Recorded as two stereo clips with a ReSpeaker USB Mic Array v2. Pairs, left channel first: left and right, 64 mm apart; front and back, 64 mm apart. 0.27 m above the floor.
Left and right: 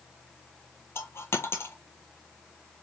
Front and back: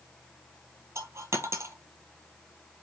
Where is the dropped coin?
140° left, 0.9 m.